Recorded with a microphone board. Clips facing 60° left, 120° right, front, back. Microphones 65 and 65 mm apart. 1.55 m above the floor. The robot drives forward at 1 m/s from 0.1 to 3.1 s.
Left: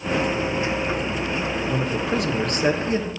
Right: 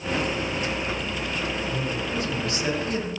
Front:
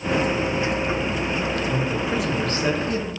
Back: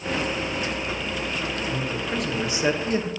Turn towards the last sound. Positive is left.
turn(degrees=125)